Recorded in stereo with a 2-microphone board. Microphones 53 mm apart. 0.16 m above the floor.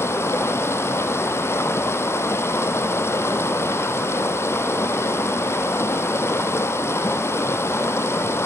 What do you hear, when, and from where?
0.0 s running water: 55° left (ahead or behind), 1.7 m